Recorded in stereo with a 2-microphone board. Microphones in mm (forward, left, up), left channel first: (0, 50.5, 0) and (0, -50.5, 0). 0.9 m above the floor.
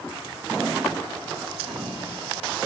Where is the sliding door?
70° right (ahead or behind), 8.5 m.